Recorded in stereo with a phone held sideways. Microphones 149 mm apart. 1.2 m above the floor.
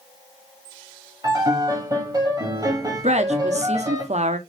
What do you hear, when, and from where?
1.2 s a piano: 25° right (ahead or behind), 1.5 m
3.0 s a woman speaking: 50° right (ahead or behind), 0.7 m